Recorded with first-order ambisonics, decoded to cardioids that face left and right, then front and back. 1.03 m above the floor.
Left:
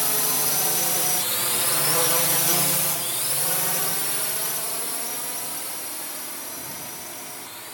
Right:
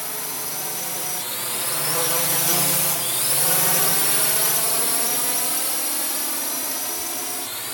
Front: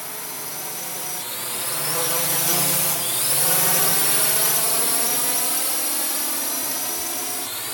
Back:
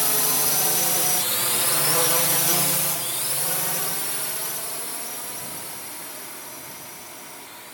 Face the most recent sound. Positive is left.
turn(degrees=-35)